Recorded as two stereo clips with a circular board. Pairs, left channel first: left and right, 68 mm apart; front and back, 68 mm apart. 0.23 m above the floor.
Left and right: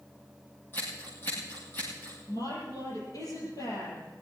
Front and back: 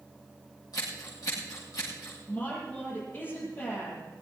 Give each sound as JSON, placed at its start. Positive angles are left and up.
{"t": 0.7, "sound": "scissors", "azimuth_deg": 30, "distance_m": 9.5}
{"t": 2.3, "sound": "a woman speaking", "azimuth_deg": 60, "distance_m": 7.5}